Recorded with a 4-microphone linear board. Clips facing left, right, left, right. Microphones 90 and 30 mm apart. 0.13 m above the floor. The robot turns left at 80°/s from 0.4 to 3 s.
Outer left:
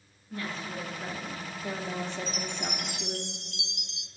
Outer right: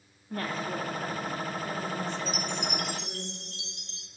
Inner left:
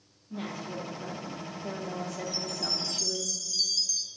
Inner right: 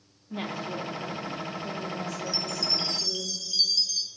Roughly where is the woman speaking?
Behind right.